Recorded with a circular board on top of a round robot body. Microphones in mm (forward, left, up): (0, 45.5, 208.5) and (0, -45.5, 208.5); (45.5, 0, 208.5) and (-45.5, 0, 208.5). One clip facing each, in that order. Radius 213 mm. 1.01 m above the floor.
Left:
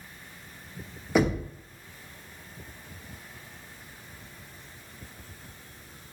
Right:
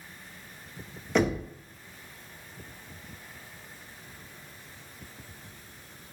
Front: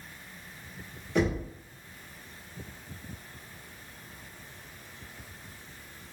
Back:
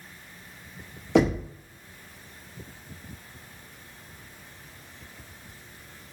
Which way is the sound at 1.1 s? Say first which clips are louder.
Left 1 dB, back 6 dB; 170° left.